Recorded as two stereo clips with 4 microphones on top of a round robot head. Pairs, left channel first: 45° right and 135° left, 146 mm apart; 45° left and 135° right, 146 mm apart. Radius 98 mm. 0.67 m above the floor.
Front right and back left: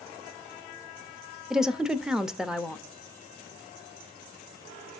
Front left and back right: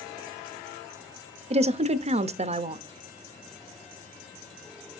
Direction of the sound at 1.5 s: 140° right.